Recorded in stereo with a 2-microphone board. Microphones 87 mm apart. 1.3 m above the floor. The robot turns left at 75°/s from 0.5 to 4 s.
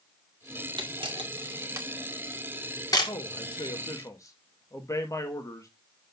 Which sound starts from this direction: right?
A camera shutter, at 0.8 s.